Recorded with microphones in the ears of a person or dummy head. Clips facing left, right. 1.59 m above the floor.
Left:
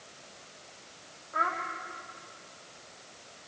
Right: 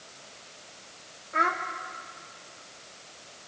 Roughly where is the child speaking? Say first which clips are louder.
Right 4 dB; right.